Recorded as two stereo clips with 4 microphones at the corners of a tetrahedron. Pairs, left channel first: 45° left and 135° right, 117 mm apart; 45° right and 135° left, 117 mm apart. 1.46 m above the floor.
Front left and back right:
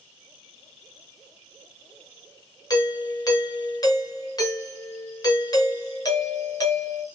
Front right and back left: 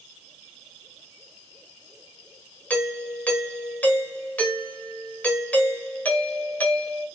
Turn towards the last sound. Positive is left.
turn(degrees=25)